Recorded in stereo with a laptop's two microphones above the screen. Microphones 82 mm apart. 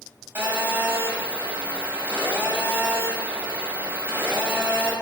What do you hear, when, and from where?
0.3 s a phone buzzing: 25° right (ahead or behind), 1.7 m